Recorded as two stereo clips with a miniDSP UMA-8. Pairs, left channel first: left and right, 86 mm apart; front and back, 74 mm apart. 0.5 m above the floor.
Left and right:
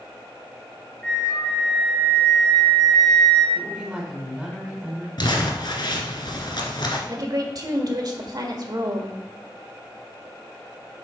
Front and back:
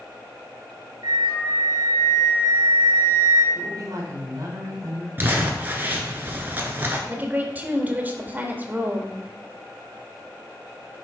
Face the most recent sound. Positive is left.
turn(degrees=-120)